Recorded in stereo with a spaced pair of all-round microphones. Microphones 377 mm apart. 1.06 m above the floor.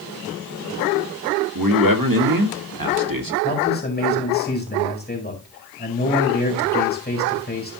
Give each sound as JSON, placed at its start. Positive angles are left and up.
{"t": 1.6, "sound": "a man speaking", "side_deg": -60, "distance_m": 1.7}
{"t": 3.4, "sound": "a man speaking", "side_deg": 25, "distance_m": 4.5}